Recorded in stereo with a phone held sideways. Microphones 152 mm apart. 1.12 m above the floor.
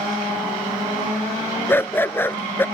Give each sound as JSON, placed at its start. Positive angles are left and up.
{"t": 1.7, "sound": "a dog barking", "side_deg": 15}